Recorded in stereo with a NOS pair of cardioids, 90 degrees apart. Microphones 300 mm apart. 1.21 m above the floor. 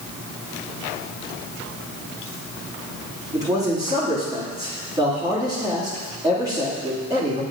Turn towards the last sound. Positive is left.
turn(degrees=-10)